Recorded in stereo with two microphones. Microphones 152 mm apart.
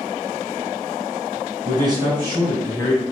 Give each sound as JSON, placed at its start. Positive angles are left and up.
{"t": 1.6, "sound": "a man speaking", "side_deg": -30, "distance_m": 2.0}